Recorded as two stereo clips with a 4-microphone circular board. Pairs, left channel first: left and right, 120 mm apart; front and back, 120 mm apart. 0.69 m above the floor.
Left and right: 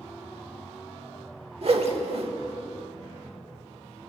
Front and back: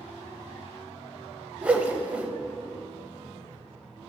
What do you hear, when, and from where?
1.6 s a whoosh: 105° right, 0.6 m